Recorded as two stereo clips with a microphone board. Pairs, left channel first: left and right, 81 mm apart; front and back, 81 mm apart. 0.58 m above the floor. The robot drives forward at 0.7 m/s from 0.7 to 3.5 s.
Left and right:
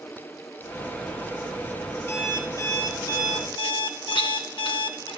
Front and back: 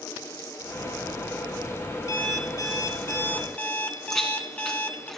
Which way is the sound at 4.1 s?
85° left.